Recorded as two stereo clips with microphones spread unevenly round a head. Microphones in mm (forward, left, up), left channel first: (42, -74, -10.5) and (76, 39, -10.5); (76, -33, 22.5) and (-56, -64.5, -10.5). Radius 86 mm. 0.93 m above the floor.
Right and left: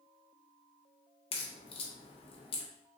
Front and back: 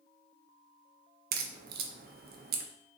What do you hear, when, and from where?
1.3 s a crack: 155° right, 0.5 m